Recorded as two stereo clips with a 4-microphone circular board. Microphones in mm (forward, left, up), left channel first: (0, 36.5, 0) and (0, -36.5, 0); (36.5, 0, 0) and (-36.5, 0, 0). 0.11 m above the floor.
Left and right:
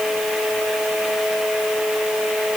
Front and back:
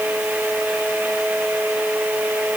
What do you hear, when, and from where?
Only background noise.